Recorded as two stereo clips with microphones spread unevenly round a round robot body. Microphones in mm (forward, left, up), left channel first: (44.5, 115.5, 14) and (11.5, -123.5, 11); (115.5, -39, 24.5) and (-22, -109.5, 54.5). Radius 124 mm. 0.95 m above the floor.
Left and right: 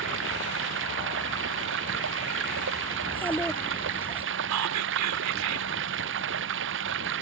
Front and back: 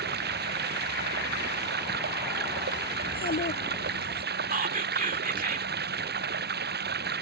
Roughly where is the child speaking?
Ahead.